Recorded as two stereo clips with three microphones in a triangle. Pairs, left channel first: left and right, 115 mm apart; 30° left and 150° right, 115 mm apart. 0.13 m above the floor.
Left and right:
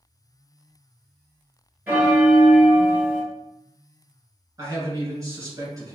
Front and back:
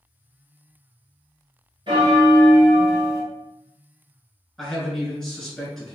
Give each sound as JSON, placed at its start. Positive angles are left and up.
{"t": 1.9, "sound": "a bell", "azimuth_deg": -155, "distance_m": 1.4}
{"t": 4.6, "sound": "a man speaking", "azimuth_deg": -55, "distance_m": 1.6}